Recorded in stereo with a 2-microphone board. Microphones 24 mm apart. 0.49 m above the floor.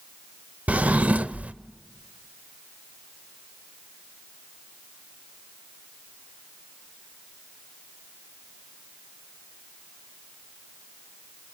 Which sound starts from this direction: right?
A drawer, at 0.7 s.